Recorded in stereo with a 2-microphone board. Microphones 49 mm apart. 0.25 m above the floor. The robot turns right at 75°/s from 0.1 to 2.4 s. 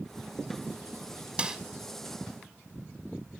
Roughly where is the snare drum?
Right.